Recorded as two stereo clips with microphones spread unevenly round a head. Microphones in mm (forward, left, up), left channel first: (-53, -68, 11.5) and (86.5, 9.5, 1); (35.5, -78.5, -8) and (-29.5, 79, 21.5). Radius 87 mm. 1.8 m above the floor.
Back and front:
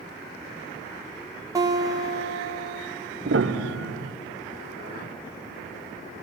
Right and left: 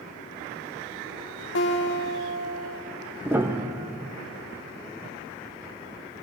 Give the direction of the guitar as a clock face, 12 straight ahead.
1 o'clock.